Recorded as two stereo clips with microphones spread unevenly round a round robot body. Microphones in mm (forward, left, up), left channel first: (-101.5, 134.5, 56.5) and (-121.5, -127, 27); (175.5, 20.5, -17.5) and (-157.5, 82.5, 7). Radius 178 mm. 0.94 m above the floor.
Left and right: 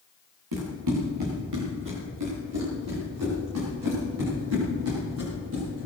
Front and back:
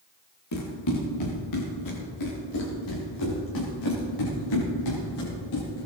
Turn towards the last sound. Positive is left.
turn(degrees=-40)